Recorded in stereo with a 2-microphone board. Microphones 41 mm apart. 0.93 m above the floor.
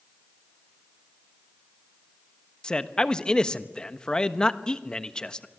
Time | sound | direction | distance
2.6 | a man speaking | 25° left (ahead or behind) | 1.2 m